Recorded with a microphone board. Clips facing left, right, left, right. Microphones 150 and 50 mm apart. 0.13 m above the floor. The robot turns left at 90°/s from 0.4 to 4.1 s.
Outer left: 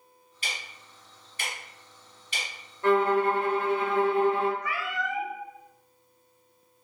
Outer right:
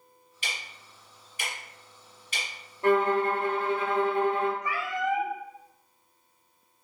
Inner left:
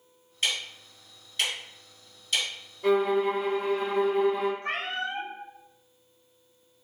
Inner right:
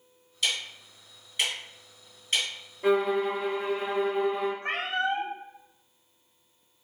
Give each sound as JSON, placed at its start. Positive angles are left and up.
{"t": 0.4, "sound": "ticking", "side_deg": 40, "distance_m": 2.0}
{"t": 2.8, "sound": "a violin", "azimuth_deg": -165, "distance_m": 1.2}
{"t": 4.6, "sound": "a cat meowing", "side_deg": -20, "distance_m": 0.8}